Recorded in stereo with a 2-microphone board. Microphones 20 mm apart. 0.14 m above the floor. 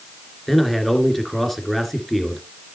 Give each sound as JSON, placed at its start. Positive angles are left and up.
{"t": 0.5, "sound": "a man speaking", "side_deg": 10, "distance_m": 2.0}